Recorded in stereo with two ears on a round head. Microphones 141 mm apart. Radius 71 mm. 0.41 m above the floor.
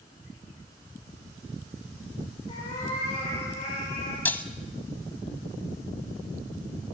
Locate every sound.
2.5 s a cat meowing: 35° left (ahead or behind), 9.5 m; by 4.2 s 40° left (ahead or behind), 11.5 m
4.2 s breaking glass: 10° left (ahead or behind), 0.8 m